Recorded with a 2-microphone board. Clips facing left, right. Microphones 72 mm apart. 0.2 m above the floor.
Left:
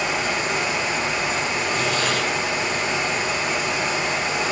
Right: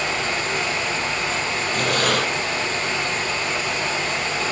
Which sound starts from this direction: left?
Running water, at 0.0 s.